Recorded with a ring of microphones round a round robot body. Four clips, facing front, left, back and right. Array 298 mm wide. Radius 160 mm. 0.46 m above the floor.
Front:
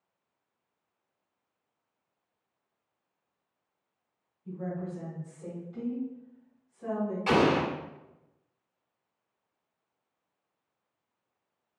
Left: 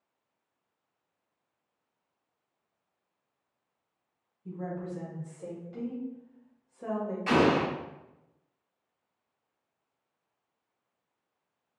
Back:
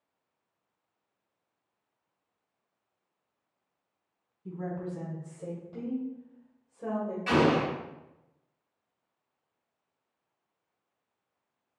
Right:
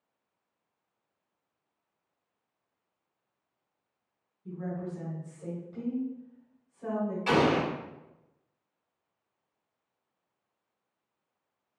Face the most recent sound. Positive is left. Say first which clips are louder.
# left 1 dB, even
turn(degrees=-45)